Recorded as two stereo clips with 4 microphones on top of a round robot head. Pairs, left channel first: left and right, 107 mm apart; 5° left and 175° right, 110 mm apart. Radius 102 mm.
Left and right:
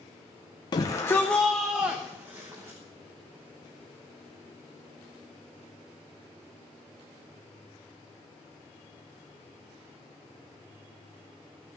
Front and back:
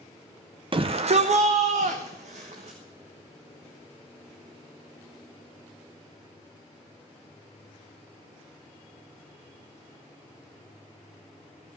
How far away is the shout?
About 0.6 m.